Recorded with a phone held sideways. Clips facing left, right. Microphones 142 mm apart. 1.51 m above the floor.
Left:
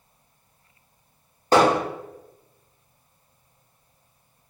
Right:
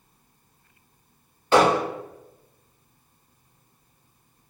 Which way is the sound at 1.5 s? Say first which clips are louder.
Left 1 dB; 40° left (ahead or behind).